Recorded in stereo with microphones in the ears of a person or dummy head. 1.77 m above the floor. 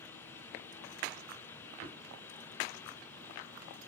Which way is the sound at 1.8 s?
15° right (ahead or behind).